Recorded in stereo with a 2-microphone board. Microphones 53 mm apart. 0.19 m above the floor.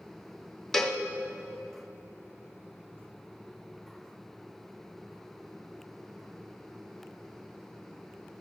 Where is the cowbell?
5° left (ahead or behind), 0.9 m.